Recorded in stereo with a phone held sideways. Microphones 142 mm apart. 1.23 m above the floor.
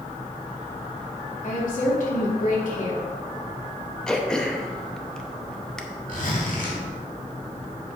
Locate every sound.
1.4 s a woman speaking: 70° left (ahead or behind), 2.5 m
4.1 s throat clearing: 5° left (ahead or behind), 0.8 m
6.1 s a zipper: 80° left, 2.5 m